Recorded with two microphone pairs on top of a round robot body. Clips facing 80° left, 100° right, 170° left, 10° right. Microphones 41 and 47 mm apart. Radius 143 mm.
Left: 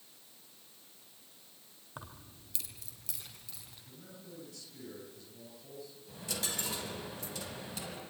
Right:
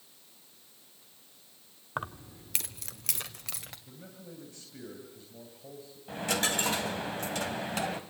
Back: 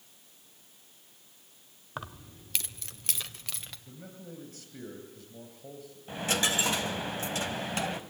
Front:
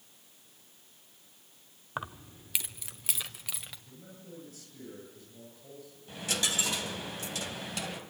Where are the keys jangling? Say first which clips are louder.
Right 12 dB, front 2 dB; 70° right, 0.9 m; by 3.8 s 95° right, 2 m.